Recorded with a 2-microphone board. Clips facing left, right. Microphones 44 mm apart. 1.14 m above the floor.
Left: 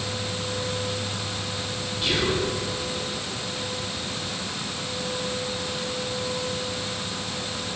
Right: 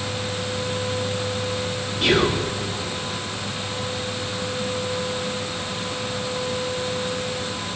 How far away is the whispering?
About 0.9 m.